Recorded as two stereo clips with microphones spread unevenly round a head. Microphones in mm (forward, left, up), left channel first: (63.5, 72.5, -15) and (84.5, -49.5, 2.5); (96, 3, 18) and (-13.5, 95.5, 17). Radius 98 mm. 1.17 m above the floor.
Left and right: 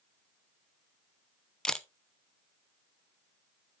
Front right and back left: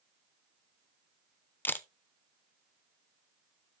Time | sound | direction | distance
1.6 | a camera shutter | 30° left | 0.8 m